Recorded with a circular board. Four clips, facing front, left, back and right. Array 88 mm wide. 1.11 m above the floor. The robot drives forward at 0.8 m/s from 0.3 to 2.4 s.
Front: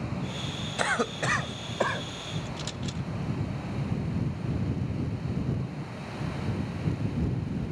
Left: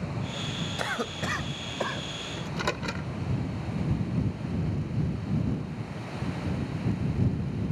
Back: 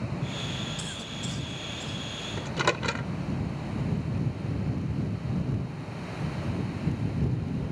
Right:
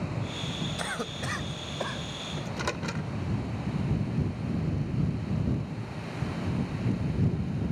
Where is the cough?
10° left.